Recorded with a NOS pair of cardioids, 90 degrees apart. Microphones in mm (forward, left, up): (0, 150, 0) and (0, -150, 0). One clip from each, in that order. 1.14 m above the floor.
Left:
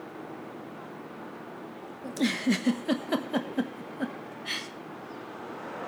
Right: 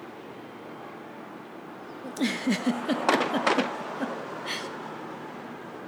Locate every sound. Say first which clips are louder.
2.0 s a giggle: even; straight ahead, 0.9 m